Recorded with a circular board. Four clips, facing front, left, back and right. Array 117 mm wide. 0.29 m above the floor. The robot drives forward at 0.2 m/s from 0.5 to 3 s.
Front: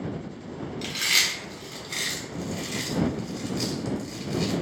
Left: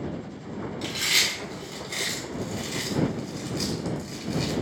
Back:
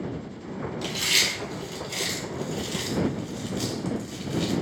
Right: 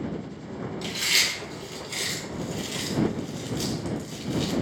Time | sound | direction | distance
0.8 | chewing | 20° left | 0.8 m